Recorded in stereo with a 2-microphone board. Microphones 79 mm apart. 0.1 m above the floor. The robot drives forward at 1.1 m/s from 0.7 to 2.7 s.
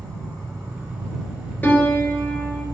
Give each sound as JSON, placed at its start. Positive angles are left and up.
{"t": 0.0, "sound": "an insect", "side_deg": -35, "distance_m": 3.5}
{"t": 1.6, "sound": "a piano", "side_deg": 20, "distance_m": 1.1}